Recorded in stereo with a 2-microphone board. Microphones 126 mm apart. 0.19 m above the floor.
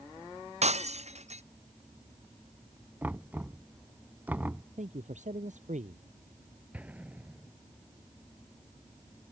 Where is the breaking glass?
60° right (ahead or behind).